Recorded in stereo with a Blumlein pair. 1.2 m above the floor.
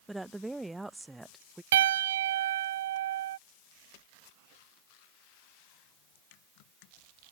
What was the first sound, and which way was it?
A woman speaking, 5° right.